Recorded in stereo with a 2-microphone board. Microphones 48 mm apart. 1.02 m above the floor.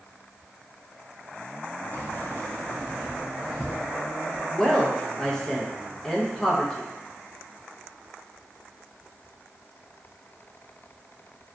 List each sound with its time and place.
1.9 s keys jangling: 55° left (ahead or behind), 0.6 m; by 4.4 s 15° right (ahead or behind), 1.2 m
4.5 s a woman speaking: 15° left (ahead or behind), 0.7 m